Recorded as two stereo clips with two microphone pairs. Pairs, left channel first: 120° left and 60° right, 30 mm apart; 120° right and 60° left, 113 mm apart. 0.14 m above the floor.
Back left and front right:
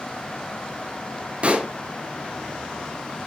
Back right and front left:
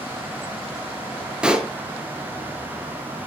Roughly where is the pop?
Ahead.